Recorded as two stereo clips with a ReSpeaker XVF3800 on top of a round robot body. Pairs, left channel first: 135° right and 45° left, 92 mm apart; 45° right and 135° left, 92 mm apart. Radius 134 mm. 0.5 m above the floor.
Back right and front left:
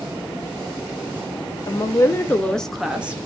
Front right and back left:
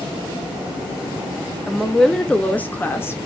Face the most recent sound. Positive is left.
turn(degrees=-10)